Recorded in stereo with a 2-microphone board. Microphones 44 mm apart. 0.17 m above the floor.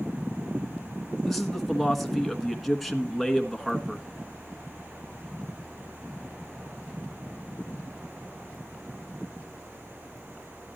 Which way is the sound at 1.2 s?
Centre (ahead or behind).